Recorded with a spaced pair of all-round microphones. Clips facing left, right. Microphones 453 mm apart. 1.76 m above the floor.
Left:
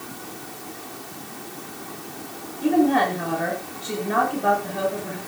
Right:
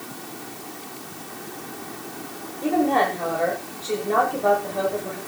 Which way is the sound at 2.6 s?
30° left (ahead or behind).